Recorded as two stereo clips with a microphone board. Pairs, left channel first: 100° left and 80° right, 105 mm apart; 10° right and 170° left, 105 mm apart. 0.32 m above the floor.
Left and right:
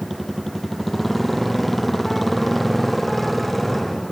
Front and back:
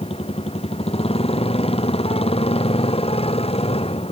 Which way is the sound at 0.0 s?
10° left.